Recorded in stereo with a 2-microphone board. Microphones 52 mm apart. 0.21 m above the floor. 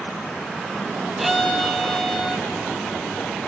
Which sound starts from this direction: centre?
A violin, at 1.2 s.